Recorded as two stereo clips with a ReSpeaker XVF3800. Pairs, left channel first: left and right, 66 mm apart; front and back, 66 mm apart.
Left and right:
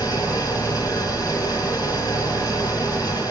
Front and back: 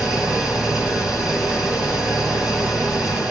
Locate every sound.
0.0 s an engine running: 100° left, 8 m